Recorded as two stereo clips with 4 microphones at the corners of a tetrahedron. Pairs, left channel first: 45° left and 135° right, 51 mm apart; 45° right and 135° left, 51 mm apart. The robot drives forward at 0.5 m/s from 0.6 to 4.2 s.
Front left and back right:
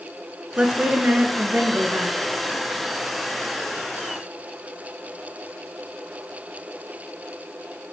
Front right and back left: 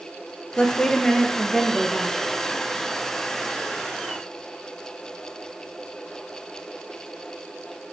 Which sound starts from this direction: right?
A woman speaking, at 0.6 s.